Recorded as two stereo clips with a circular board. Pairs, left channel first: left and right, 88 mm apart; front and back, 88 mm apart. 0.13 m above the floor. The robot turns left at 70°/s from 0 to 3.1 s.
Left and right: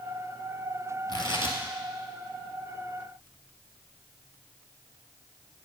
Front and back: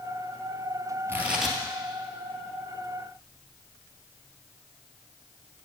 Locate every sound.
1.1 s tearing paper: 120° left, 1.8 m; by 1.6 s 85° left, 1.8 m